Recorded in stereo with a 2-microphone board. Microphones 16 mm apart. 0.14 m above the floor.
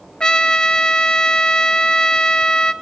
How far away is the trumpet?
About 0.9 m.